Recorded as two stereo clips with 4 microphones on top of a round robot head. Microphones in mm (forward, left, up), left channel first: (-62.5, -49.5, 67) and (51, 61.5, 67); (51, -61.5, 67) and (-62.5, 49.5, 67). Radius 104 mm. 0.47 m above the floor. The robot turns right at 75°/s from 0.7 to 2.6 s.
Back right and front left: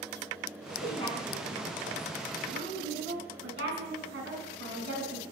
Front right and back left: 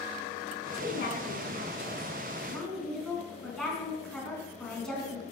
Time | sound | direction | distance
0.7 | a woman speaking | 100° right | 4.5 m